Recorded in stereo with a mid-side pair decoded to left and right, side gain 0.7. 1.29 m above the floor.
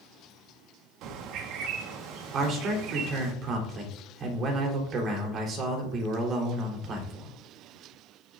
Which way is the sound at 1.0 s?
60° right.